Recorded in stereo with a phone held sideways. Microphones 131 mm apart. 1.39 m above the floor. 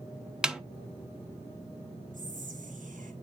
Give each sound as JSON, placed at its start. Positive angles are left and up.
{"t": 0.4, "sound": "a snare drum", "side_deg": -5, "distance_m": 0.6}
{"t": 2.1, "sound": "whispering", "side_deg": -75, "distance_m": 3.0}